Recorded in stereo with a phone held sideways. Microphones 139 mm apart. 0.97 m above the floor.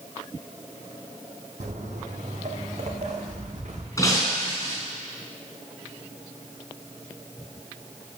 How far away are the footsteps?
About 1.8 m.